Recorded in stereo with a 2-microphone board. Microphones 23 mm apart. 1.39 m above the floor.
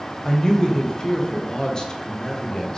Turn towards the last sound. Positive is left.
turn(degrees=35)  # may be behind; listen again after turning